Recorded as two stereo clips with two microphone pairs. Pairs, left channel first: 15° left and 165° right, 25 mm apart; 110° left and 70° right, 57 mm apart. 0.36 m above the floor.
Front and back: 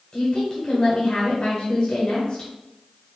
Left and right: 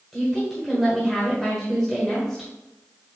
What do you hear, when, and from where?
0.1 s a woman speaking: 25° left, 1.5 m